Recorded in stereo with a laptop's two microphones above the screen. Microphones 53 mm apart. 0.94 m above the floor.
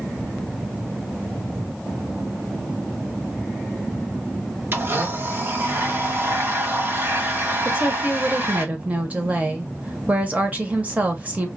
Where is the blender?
45° right (ahead or behind), 1.0 m.